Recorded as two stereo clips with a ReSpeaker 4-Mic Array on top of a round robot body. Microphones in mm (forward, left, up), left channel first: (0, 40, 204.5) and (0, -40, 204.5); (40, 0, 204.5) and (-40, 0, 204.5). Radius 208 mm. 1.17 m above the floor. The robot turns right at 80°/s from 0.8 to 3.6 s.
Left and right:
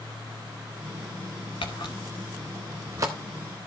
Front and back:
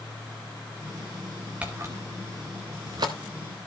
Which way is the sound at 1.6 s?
105° left.